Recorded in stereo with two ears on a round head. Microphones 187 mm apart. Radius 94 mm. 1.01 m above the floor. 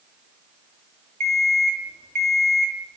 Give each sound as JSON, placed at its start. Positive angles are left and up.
{"t": 1.2, "sound": "an alarm clock", "side_deg": -40, "distance_m": 2.5}